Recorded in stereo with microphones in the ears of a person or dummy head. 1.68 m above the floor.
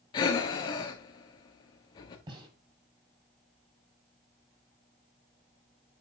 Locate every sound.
0.1 s breathing: 25° left (ahead or behind), 1.2 m
2.3 s a gunshot: 25° right (ahead or behind), 6.5 m